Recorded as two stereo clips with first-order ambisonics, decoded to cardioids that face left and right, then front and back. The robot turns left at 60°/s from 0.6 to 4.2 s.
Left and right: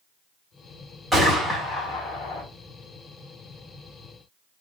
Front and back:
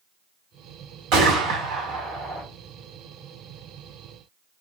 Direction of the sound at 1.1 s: Straight behind.